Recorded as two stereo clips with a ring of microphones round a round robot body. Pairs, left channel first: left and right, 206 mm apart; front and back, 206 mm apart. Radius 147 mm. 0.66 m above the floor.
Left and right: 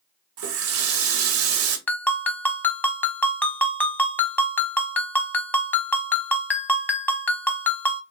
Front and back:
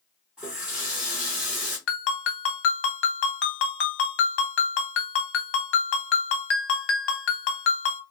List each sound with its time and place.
0.4 s a running tap: 95° right, 0.8 m
1.9 s a ringtone: 10° left, 1.0 m